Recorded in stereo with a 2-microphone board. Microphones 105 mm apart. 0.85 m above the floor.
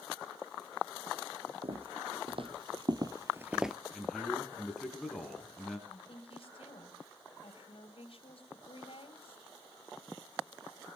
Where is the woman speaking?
60° left (ahead or behind), 6 m.